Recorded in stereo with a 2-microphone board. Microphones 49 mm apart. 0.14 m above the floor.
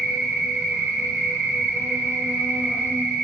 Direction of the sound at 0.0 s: 35° right (ahead or behind).